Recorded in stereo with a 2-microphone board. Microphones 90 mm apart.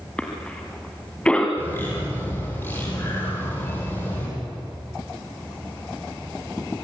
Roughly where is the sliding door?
No sliding door in this recording.